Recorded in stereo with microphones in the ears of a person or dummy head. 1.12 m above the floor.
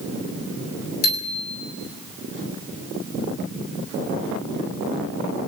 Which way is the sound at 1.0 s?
80° left.